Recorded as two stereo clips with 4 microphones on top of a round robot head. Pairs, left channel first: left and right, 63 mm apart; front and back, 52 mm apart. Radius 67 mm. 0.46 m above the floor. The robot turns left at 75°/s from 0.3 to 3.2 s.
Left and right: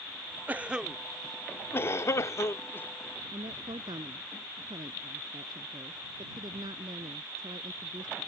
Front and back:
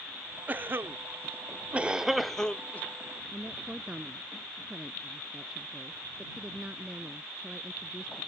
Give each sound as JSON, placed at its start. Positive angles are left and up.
{"t": 0.5, "sound": "a cough", "azimuth_deg": -140}
{"t": 3.3, "sound": "a woman speaking", "azimuth_deg": -105}